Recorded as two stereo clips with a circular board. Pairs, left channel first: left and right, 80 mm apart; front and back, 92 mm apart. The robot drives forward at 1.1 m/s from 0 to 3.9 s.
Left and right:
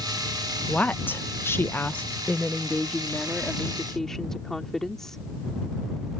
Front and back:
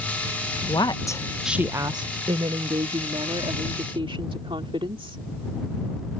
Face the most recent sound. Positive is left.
turn(degrees=175)